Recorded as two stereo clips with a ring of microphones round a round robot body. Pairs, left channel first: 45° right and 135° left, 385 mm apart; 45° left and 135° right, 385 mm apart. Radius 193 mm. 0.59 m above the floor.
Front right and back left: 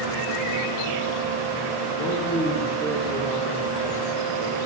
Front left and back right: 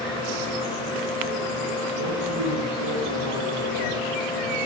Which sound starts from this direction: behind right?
A man speaking, at 2.0 s.